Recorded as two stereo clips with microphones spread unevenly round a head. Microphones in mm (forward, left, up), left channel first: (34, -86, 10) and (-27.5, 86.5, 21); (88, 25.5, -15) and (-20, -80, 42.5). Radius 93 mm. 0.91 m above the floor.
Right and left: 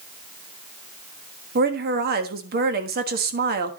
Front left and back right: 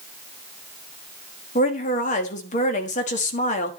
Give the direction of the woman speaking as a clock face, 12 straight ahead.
10 o'clock.